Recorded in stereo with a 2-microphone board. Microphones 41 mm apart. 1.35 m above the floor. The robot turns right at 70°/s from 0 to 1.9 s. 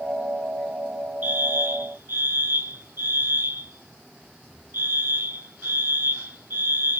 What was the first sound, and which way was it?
A fire alarm, 125° right.